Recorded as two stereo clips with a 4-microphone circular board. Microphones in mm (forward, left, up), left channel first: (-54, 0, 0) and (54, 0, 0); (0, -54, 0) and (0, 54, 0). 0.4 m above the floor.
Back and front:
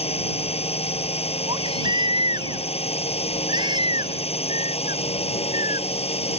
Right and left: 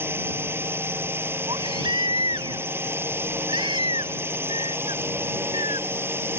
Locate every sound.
0.0 s a drone: 160° left
1.5 s a baby crying: 45° left